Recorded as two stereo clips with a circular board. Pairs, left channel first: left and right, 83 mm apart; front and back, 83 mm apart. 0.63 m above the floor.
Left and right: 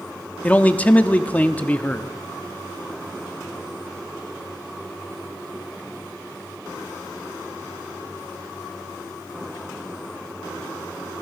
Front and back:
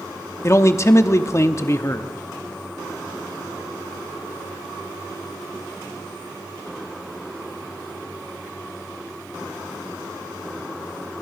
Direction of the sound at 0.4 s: 30° left.